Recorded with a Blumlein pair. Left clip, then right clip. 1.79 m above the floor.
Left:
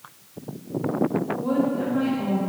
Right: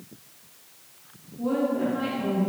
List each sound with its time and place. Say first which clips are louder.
1.4 s a woman speaking: right 3 dB; 10° left, 1.5 m